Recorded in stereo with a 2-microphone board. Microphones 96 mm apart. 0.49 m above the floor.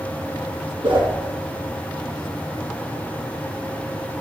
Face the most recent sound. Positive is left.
turn(degrees=-80)